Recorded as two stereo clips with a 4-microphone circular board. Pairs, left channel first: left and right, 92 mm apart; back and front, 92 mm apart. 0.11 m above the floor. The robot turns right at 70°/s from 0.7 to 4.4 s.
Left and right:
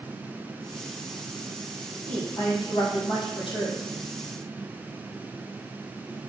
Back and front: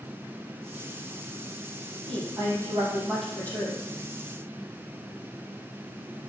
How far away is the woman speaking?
About 4 m.